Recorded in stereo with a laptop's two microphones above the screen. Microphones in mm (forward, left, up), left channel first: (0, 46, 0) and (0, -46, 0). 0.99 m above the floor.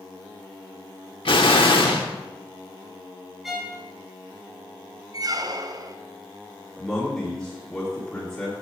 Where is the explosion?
70° left (ahead or behind), 1.1 m.